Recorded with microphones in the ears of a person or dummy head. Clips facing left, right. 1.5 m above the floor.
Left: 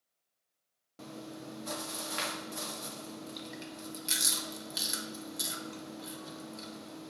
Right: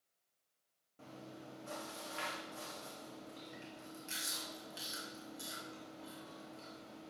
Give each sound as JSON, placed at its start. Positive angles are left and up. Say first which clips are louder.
{"t": 1.0, "sound": "chewing", "louder": "left 8 dB", "side_deg": 75, "distance_m": 0.9}